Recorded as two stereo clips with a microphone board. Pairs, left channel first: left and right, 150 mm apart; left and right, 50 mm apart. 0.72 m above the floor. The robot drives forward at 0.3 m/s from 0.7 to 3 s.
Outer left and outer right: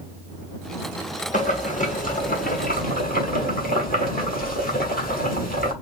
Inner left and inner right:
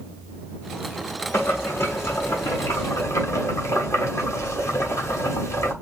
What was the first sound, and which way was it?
Boiling, 55° left (ahead or behind).